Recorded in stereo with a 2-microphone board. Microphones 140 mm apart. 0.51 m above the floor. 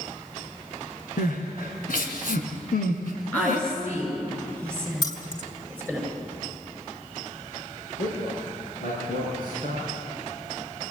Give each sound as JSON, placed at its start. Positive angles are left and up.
{"t": 1.2, "sound": "crying", "side_deg": 85, "distance_m": 2.5}
{"t": 3.3, "sound": "a woman speaking", "side_deg": 10, "distance_m": 8.0}
{"t": 5.0, "sound": "keys jangling", "side_deg": 30, "distance_m": 2.5}
{"t": 8.0, "sound": "a man speaking", "side_deg": 80, "distance_m": 7.0}